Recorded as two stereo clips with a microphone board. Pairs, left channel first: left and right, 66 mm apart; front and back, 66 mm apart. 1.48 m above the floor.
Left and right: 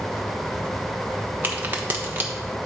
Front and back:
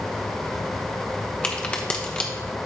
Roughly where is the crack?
Ahead right.